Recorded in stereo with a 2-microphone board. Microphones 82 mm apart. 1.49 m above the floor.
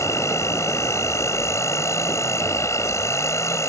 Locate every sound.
0.0 s an insect: 35° left (ahead or behind)